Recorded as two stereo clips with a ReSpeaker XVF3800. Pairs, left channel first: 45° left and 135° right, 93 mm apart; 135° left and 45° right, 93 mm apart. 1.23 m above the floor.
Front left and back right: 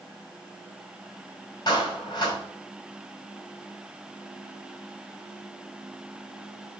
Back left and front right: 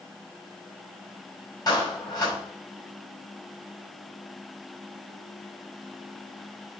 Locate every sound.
1.7 s a clap: 85° left, 5.5 m